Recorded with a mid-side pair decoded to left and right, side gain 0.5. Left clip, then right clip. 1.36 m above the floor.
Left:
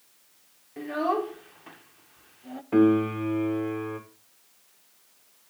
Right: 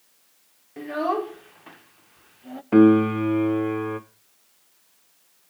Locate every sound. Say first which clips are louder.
0.8 s a child speaking: right 2 dB; 15° right, 0.8 m
2.7 s a piano: right 5 dB; 45° right, 1.3 m